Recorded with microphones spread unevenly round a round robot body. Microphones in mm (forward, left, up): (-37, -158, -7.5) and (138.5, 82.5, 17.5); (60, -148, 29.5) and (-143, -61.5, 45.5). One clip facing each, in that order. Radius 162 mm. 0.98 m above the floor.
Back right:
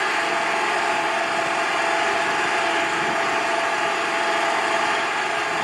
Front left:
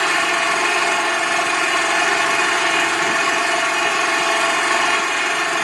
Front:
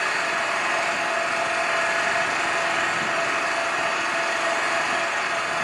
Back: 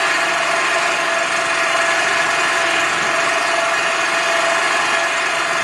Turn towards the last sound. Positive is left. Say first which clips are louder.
# front left 2 dB, back 7 dB
turn(degrees=115)